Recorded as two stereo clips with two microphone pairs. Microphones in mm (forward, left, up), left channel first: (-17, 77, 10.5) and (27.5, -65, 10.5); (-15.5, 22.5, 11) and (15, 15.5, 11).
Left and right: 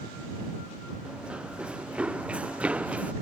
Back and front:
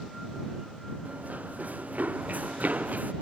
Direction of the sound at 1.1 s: 10° left.